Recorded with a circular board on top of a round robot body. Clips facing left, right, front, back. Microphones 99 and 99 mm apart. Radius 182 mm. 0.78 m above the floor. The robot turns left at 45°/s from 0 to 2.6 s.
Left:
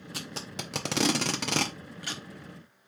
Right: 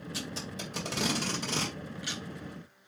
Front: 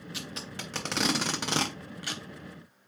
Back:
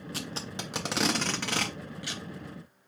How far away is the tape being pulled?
About 0.5 m.